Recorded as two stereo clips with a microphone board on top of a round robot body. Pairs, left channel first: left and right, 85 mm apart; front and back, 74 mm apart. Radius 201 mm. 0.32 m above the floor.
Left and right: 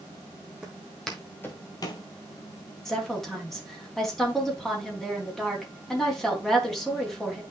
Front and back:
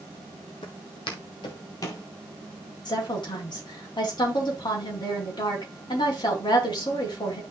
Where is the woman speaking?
5° left, 3.5 m.